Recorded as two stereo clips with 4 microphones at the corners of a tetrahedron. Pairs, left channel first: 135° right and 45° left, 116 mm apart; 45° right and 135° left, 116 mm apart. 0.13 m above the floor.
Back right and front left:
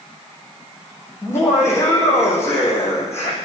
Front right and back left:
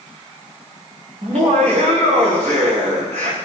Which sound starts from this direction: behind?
Laughter, at 1.2 s.